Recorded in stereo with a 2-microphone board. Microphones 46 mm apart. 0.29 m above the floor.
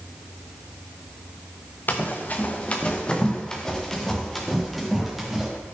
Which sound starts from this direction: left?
Running footsteps, at 1.9 s.